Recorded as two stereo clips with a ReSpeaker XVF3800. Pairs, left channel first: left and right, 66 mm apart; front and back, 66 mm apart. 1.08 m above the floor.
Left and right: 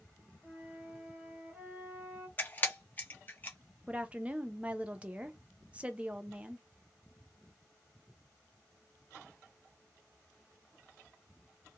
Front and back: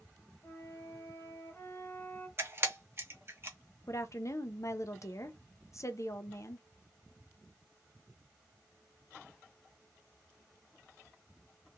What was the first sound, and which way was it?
A flute, 35° right.